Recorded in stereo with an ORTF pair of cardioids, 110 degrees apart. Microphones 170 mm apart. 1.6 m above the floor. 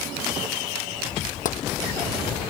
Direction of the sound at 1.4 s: 55° left.